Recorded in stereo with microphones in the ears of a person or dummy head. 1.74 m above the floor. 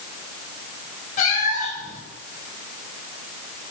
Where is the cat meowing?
40° left (ahead or behind), 3 m.